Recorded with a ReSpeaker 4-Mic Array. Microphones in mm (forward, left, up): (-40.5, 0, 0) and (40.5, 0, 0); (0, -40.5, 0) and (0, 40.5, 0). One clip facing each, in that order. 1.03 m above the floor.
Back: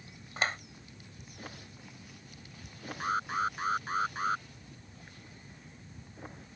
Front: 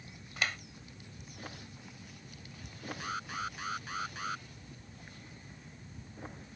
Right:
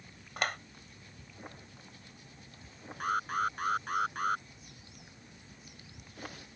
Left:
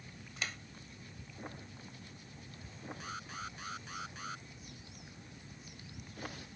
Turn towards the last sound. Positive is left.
turn(degrees=-125)